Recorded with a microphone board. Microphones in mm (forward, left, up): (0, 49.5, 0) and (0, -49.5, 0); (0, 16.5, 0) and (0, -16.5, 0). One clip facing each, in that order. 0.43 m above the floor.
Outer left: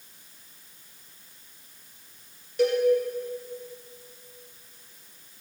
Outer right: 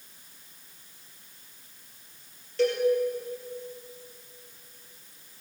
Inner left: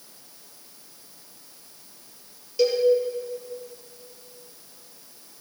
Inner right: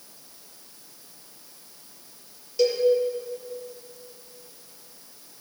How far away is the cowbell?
About 4.5 m.